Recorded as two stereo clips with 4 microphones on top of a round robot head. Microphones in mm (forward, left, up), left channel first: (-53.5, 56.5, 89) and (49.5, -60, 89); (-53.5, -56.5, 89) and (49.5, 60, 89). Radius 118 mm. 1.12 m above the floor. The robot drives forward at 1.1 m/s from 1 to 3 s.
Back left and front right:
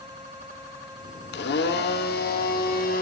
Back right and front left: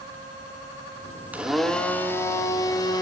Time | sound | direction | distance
1.3 | a blender | 130° left | 1.1 m